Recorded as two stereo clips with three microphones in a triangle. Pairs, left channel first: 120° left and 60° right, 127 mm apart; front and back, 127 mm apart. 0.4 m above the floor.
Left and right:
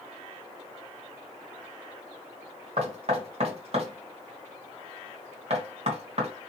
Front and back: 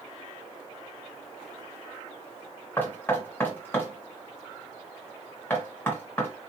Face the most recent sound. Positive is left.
turn(degrees=-70)